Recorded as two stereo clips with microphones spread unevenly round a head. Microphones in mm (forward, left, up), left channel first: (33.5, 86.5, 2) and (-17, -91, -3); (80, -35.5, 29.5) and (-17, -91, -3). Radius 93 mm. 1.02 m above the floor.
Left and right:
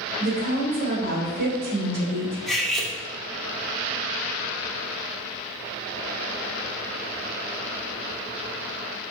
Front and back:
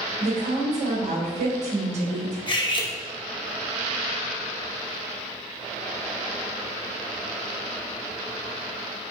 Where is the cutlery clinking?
15° right, 1.6 m.